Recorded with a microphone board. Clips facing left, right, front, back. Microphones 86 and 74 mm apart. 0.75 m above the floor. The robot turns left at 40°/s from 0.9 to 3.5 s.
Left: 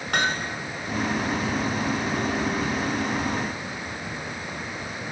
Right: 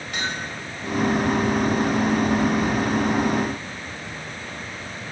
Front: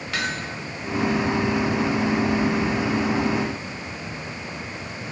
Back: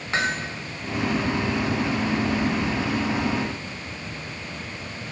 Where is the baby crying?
I don't hear a baby crying.